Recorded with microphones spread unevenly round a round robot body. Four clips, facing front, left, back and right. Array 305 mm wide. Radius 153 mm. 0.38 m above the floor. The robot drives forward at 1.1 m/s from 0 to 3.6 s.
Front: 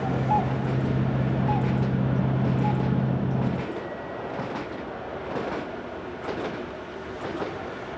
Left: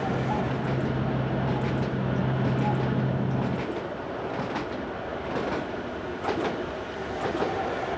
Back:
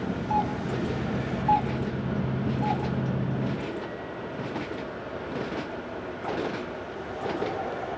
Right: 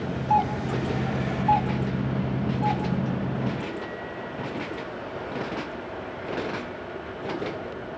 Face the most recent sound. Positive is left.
turn(degrees=-175)